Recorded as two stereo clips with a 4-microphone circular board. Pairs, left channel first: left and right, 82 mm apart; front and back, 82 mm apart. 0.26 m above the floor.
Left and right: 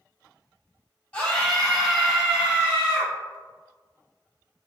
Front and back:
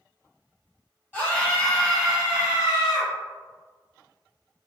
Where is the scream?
40° left, 1.2 m; by 3.1 s 130° right, 1.4 m.